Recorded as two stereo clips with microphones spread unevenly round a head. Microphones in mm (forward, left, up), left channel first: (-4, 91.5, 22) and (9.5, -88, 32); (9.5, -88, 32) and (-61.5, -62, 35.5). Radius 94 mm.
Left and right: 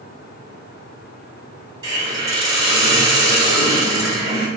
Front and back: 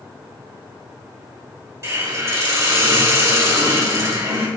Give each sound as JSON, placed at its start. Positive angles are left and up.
{"t": 1.8, "sound": "a hiss", "azimuth_deg": -155, "distance_m": 1.3}